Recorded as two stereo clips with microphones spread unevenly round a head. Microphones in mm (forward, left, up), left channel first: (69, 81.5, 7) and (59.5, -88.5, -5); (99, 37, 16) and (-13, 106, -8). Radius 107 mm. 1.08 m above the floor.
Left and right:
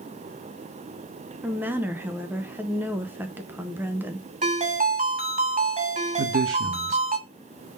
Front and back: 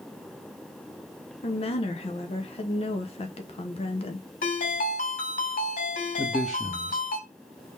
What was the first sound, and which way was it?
A woman speaking, 30° right.